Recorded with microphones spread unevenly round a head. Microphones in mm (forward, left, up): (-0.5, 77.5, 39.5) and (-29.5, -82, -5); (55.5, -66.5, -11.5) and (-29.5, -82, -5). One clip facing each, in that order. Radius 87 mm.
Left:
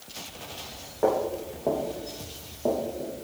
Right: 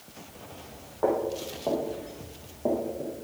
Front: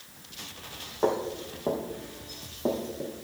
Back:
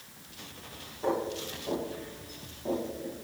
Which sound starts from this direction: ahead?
Footsteps, at 1.0 s.